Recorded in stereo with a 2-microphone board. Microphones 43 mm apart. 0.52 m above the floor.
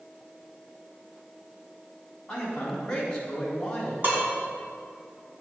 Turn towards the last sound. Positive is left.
turn(degrees=-50)  # may be behind; listen again after turning